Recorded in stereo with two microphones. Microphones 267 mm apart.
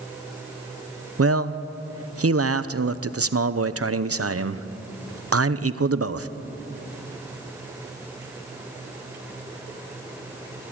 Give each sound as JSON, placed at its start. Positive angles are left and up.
{"t": 1.2, "sound": "a man speaking", "side_deg": -65, "distance_m": 0.7}